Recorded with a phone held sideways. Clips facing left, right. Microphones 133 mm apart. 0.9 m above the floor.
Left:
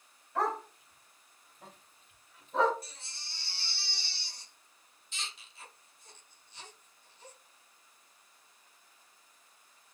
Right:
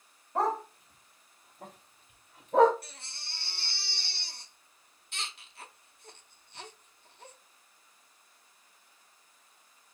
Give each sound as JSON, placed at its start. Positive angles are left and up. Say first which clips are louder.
{"t": 0.3, "sound": "a dog barking", "louder": "right 3 dB", "side_deg": -35, "distance_m": 2.0}
{"t": 2.8, "sound": "a baby crying", "louder": "right 1 dB", "side_deg": -60, "distance_m": 0.9}